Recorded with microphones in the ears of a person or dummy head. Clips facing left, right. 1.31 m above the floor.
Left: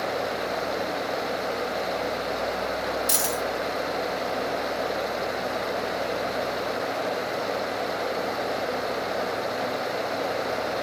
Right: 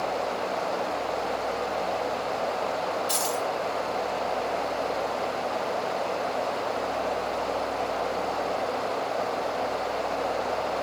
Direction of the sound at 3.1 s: 55° left (ahead or behind).